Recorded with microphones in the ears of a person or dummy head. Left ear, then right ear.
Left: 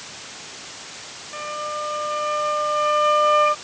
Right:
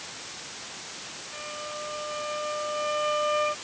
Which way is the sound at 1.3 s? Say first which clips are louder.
Left 9 dB; 45° left (ahead or behind).